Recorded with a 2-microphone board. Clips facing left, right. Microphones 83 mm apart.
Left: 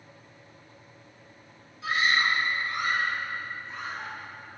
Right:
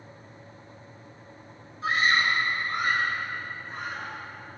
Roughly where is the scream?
Right.